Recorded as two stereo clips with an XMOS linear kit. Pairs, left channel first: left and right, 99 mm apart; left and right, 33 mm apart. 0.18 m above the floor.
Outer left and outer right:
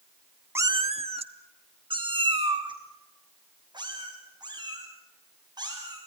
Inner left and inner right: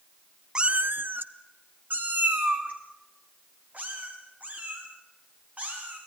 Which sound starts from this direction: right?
A cat meowing, at 0.6 s.